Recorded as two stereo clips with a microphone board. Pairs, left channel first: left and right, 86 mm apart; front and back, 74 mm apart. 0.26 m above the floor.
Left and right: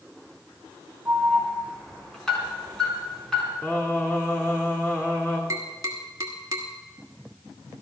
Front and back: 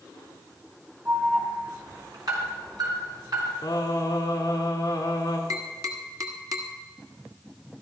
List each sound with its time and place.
1.1 s an alarm: 170° left, 4 m
3.6 s singing: 25° left, 1.7 m
5.5 s tapping: 140° right, 1.5 m